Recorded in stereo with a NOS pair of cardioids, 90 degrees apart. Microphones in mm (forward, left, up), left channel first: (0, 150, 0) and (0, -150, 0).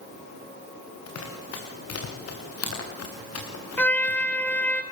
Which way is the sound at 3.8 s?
5° left.